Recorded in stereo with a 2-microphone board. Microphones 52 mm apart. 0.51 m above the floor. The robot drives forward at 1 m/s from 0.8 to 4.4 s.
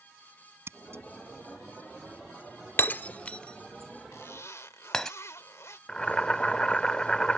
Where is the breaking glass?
40° left (ahead or behind); by 5.1 s 10° left (ahead or behind).